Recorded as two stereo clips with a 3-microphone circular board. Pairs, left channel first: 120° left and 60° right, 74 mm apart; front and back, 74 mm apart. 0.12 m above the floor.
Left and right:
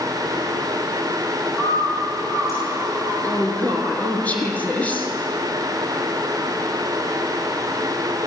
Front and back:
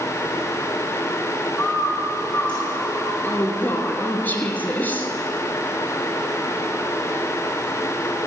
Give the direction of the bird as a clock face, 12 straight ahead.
9 o'clock.